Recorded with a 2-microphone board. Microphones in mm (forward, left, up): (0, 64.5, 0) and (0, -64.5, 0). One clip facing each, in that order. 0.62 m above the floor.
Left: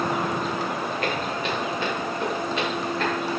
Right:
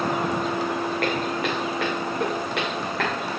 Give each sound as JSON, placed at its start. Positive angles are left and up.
{"t": 1.0, "sound": "footsteps", "side_deg": -60, "distance_m": 3.0}